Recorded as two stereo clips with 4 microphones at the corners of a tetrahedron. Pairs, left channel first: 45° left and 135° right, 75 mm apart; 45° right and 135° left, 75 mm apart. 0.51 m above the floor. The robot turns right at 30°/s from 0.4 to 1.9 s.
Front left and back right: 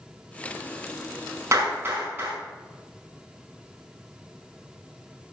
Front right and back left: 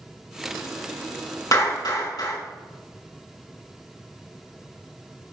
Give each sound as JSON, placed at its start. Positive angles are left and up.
{"t": 1.5, "sound": "a clap", "azimuth_deg": -85, "distance_m": 5.0}